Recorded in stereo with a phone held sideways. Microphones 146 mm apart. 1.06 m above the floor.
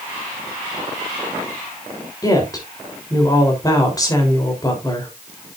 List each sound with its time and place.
2.2 s a woman speaking: 25° left (ahead or behind), 3.5 m